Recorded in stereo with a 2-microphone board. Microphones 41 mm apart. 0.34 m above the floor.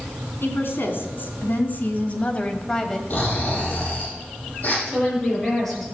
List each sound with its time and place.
0.4 s a woman speaking: 60° left (ahead or behind), 3 m; by 3.0 s 10° left (ahead or behind), 1.7 m
3.1 s snoring: 40° left (ahead or behind), 8 m
4.9 s a woman speaking: 5° left (ahead or behind), 7.5 m